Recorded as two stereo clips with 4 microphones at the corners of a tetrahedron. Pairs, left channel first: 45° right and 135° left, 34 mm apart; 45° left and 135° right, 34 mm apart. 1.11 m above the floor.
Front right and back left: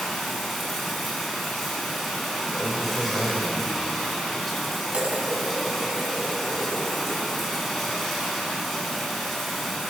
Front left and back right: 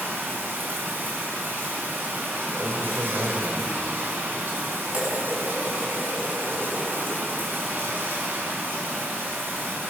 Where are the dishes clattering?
175° right, 5.5 m.